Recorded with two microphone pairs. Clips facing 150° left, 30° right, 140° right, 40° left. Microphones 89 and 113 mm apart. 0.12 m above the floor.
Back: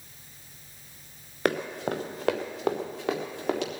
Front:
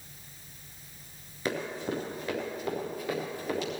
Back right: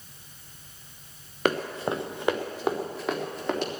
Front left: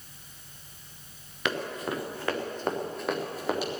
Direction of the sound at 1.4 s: 175° left.